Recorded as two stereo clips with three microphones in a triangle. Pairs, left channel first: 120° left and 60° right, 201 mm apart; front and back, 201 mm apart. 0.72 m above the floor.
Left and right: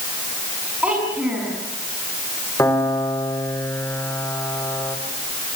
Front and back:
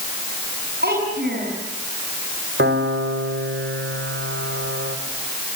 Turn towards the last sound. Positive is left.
turn(degrees=-165)